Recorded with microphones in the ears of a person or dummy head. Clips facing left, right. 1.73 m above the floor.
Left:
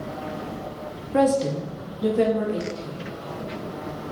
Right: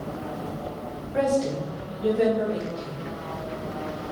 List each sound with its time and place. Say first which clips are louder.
1.1 s a woman speaking: left 3 dB; 55° left (ahead or behind), 0.6 m; by 3.0 s 75° left (ahead or behind), 1.6 m